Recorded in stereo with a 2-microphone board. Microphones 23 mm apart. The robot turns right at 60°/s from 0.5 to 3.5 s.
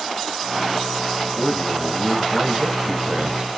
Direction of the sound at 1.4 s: 170° left.